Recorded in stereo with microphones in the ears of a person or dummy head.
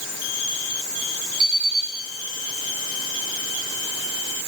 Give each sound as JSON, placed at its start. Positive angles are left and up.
{"t": 1.4, "sound": "an alarm clock", "side_deg": -50, "distance_m": 7.0}